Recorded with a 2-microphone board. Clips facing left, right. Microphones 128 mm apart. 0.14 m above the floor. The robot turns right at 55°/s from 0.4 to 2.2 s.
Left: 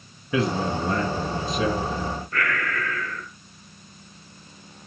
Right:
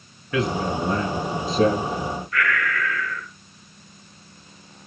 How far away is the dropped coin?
No dropped coin in this recording.